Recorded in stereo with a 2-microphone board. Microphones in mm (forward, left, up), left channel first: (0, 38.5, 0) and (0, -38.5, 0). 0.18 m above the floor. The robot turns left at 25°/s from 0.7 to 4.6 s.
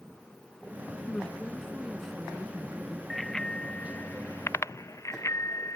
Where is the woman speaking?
20° left; by 3.0 s 25° right.